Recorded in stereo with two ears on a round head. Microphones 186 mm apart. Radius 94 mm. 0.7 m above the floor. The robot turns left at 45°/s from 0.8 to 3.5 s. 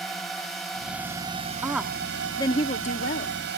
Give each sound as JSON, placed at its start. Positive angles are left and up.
{"t": 0.0, "sound": "a drone", "azimuth_deg": 0}
{"t": 1.6, "sound": "a woman speaking", "azimuth_deg": -170}